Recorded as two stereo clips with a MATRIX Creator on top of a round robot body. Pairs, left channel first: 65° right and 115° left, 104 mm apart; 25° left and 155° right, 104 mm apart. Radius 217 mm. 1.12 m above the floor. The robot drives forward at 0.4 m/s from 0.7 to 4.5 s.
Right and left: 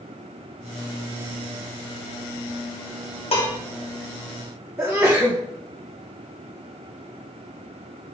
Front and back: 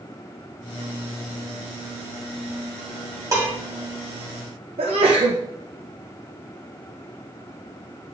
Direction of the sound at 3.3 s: 95° right.